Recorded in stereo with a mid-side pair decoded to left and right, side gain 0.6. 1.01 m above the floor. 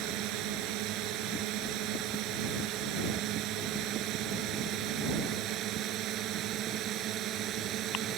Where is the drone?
70° right; by 8.2 s 55° right.